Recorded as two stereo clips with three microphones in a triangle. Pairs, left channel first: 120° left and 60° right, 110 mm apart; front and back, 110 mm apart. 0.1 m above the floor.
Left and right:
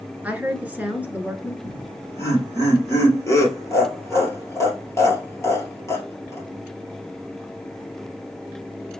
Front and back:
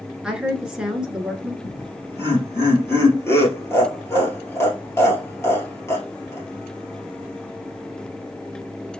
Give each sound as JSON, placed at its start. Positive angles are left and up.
{"t": 0.2, "sound": "a woman speaking", "azimuth_deg": -110, "distance_m": 1.2}
{"t": 1.6, "sound": "laughter", "azimuth_deg": 60, "distance_m": 2.5}